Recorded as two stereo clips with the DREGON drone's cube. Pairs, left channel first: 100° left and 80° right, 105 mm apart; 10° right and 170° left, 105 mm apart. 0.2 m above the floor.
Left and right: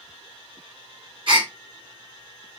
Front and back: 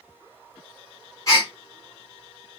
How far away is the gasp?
About 2.5 m.